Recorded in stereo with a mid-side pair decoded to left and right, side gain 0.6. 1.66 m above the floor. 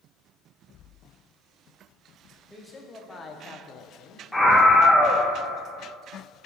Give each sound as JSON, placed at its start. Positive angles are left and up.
{"t": 2.5, "sound": "a man speaking", "azimuth_deg": 5, "distance_m": 1.5}
{"t": 4.3, "sound": "a scream", "azimuth_deg": 5, "distance_m": 1.3}